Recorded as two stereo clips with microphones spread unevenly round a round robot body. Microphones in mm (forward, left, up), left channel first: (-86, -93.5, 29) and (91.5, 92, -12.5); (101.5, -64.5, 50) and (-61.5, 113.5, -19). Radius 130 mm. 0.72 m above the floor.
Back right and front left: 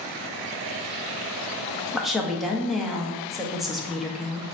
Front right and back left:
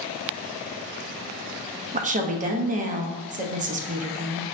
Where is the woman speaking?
125° left, 0.6 m.